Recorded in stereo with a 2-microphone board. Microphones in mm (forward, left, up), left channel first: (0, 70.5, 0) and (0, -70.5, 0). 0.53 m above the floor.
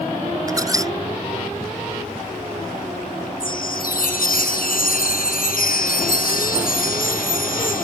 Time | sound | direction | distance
0.5 | a squeak | 25° right (ahead or behind) | ?
3.4 | a chime | 85° left | ?